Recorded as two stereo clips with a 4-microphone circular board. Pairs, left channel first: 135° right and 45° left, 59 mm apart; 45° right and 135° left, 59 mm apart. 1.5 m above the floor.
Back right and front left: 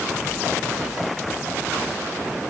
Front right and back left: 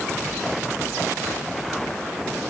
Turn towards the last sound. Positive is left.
No sound to turn to.